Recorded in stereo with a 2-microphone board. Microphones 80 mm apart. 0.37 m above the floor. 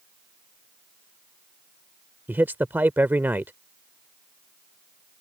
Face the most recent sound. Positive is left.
turn(degrees=-25)  # may be behind; listen again after turning